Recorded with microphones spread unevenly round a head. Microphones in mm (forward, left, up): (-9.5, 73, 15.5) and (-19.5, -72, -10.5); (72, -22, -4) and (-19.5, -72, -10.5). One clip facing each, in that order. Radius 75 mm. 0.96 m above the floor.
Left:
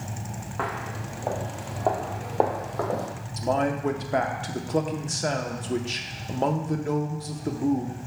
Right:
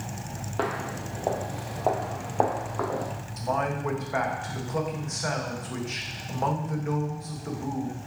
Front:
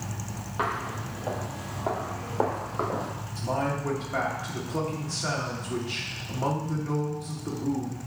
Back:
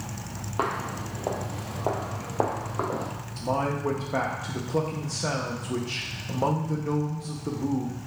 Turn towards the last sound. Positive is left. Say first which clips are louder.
# left 4 dB, back 2 dB
turn(degrees=145)